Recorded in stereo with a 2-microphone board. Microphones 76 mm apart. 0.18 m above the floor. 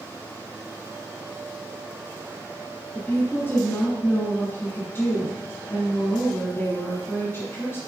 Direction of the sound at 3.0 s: 25° left (ahead or behind).